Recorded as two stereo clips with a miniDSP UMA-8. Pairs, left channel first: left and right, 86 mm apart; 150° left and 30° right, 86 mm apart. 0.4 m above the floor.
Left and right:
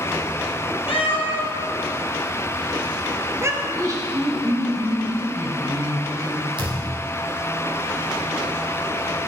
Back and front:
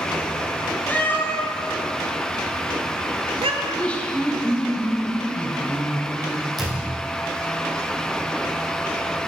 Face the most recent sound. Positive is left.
turn(degrees=-120)